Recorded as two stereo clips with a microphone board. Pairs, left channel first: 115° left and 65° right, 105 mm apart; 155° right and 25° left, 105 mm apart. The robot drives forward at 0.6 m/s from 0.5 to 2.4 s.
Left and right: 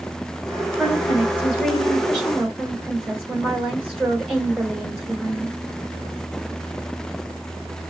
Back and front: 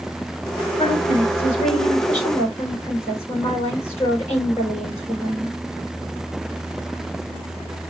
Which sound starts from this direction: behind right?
A woman speaking, at 0.8 s.